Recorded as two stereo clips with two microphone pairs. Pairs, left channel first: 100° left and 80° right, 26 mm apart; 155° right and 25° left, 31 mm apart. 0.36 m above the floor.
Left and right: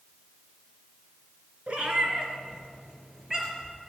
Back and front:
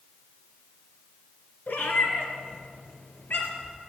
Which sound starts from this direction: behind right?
A cat meowing, at 1.7 s.